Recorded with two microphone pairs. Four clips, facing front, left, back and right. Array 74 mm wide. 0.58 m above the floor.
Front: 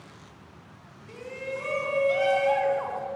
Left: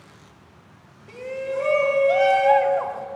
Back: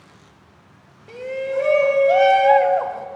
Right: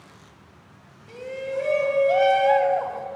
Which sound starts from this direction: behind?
A shout, at 1.1 s.